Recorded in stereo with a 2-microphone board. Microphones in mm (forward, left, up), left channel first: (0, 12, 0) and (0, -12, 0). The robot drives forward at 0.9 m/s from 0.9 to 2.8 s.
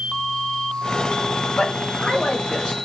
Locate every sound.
1.6 s a man speaking: 60° left (ahead or behind), 1.4 m; by 2.8 s 35° left (ahead or behind), 2 m